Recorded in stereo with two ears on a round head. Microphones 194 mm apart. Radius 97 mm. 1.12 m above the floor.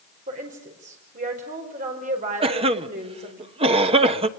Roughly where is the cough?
Right.